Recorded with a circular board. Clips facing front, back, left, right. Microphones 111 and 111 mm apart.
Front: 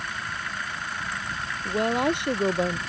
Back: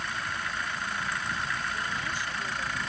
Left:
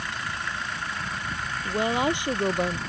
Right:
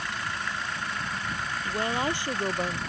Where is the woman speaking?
20° left.